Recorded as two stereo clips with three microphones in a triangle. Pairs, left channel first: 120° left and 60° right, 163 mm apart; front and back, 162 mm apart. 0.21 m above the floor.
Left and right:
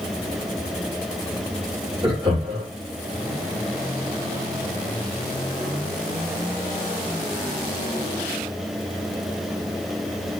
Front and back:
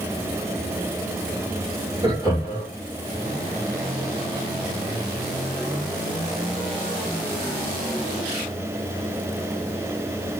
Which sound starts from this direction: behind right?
Laughter, at 2.0 s.